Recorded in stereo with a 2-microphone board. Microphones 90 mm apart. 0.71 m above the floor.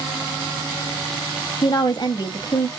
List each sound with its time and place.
1.6 s a woman speaking: 50° left (ahead or behind), 0.7 m